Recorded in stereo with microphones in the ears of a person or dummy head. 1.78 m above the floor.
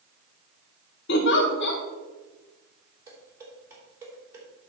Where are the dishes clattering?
10° right (ahead or behind), 3.5 m.